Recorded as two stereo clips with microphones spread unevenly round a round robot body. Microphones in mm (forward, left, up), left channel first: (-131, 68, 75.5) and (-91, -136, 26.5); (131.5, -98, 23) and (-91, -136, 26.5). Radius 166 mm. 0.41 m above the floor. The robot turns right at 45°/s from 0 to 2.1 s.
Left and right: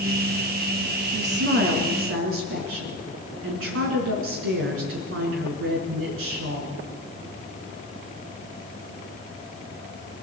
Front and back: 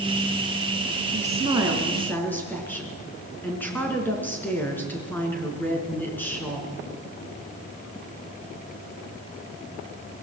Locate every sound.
1.1 s a woman speaking: 120° right, 4.5 m; by 6.8 s 70° right, 4.5 m